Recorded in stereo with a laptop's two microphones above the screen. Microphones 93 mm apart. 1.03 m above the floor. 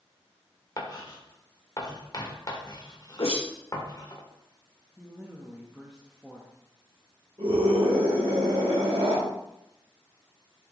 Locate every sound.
0.8 s writing: 40° left (ahead or behind), 1.6 m
3.2 s a whoosh: 75° left (ahead or behind), 1.2 m
5.0 s a woman speaking: 5° right (ahead or behind), 1.2 m
7.4 s a scream: 50° right (ahead or behind), 4 m